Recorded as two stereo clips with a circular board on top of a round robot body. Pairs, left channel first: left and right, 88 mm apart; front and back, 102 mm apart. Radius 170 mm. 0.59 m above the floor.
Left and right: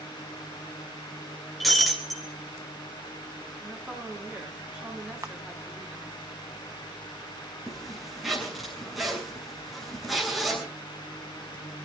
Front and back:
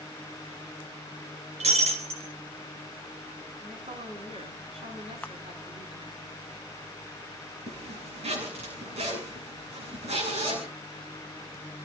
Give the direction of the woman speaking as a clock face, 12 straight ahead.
6 o'clock.